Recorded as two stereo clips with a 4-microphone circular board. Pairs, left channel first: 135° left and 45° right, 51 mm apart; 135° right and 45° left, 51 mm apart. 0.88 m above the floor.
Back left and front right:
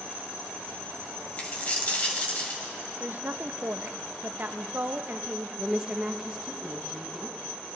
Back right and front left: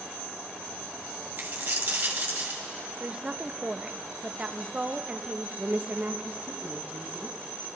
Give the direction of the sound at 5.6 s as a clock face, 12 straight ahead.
11 o'clock.